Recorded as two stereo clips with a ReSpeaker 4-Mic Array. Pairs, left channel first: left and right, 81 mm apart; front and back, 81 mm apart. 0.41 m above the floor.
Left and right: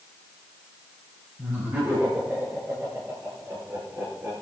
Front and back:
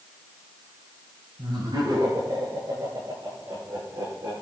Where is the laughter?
155° right, 8 m; by 4.3 s 145° right, 7.5 m.